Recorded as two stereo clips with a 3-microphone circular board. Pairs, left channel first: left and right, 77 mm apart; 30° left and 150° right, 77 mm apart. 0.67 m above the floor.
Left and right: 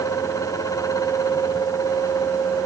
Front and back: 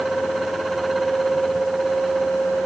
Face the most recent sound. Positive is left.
No sound to turn to.